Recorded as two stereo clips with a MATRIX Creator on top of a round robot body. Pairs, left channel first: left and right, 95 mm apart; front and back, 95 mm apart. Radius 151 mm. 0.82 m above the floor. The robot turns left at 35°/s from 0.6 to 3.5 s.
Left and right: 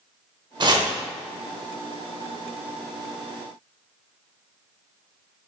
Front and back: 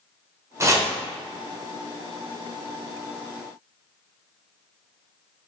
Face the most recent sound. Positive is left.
turn(degrees=135)